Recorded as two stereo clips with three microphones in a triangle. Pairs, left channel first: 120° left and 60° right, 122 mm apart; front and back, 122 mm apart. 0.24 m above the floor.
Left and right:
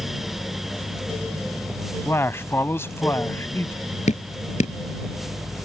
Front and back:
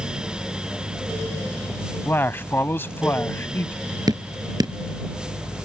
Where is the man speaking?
65° left.